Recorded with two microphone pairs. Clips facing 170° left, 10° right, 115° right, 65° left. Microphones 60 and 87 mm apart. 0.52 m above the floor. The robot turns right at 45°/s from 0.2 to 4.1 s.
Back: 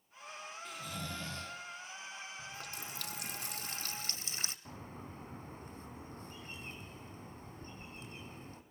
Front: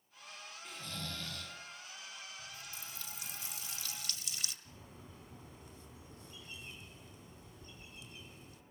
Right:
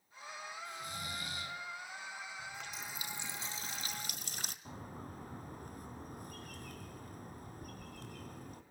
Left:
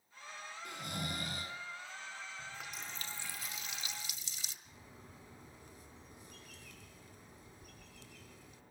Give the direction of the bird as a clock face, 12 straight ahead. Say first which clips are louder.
Back 7 dB, right 9 dB; 5 o'clock.